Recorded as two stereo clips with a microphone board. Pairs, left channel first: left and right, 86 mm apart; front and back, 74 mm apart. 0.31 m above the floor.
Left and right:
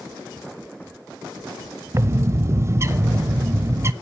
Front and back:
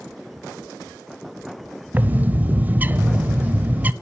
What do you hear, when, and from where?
1.9 s a bird: 125° right, 0.6 m